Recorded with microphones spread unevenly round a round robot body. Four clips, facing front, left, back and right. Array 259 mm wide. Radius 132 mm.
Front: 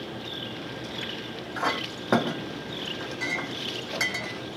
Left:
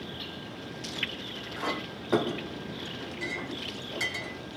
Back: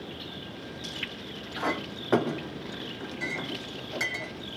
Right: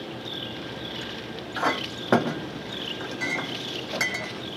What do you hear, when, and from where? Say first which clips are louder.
1.6 s a clink: right 7 dB, front 2 dB; 60° right, 2.5 m